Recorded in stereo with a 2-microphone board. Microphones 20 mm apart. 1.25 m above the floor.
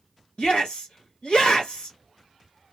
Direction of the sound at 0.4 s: 70° left (ahead or behind).